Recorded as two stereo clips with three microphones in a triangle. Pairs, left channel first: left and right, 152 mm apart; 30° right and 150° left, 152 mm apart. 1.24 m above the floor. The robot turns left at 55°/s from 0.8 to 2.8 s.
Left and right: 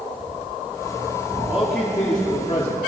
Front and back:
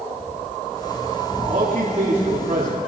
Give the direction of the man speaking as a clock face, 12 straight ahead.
6 o'clock.